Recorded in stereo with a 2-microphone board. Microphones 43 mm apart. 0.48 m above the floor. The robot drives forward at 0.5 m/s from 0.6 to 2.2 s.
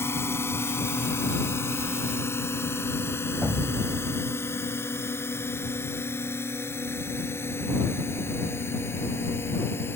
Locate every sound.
0.0 s a drone: 75° left (ahead or behind); by 10.0 s 65° left (ahead or behind)
3.4 s an explosion: 40° right (ahead or behind)